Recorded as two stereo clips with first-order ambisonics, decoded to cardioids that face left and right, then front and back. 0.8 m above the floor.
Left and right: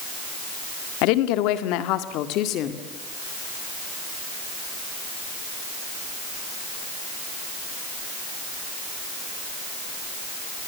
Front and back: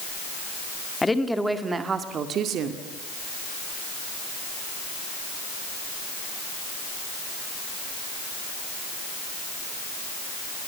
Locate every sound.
1.0 s a woman speaking: 80° left, 1.8 m; by 2.9 s 135° left, 2 m